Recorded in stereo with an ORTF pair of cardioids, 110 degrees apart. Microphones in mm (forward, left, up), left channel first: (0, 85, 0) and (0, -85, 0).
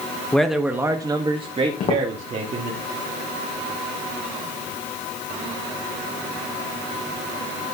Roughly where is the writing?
No writing in this recording.